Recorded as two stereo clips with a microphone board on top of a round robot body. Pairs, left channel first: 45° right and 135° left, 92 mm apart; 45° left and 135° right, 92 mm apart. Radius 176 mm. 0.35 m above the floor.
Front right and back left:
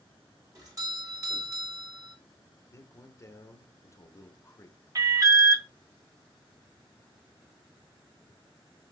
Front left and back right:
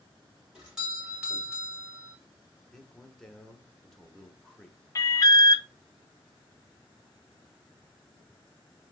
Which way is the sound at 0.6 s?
145° left.